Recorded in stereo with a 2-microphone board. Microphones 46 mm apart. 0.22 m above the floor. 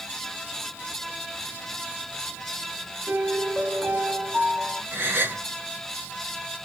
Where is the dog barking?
No dog barking in this recording.